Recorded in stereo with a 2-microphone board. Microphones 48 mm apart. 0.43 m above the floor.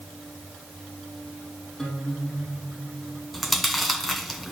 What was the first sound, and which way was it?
A guitar, 5° left (ahead or behind).